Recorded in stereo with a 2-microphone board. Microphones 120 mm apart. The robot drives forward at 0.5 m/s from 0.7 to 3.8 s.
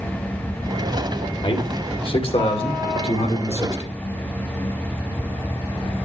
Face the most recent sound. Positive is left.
turn(degrees=65)  # may be behind; listen again after turning